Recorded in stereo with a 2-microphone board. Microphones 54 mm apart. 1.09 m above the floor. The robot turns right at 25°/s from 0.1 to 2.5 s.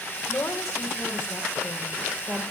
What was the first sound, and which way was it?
A woman speaking, 120° left.